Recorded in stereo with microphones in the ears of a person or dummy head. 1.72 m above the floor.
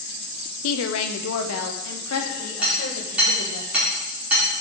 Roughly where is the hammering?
Centre.